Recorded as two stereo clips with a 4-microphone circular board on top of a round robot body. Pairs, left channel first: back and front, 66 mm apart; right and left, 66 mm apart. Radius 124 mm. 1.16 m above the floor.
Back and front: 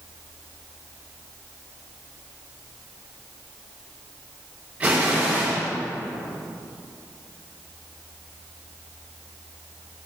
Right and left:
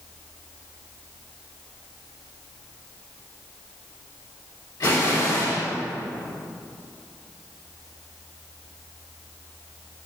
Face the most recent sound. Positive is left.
turn(degrees=-65)